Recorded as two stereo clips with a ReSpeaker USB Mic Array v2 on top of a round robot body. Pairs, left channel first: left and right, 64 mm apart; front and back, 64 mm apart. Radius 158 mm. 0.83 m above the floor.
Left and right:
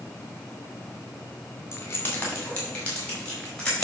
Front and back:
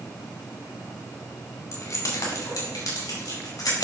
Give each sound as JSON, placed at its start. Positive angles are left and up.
{"t": 1.7, "sound": "keys jangling", "azimuth_deg": 40, "distance_m": 1.7}